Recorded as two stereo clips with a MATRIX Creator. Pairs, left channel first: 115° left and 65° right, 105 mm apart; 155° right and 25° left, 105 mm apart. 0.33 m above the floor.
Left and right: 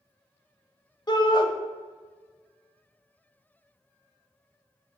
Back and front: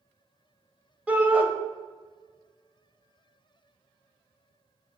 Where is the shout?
95° left, 1.2 m.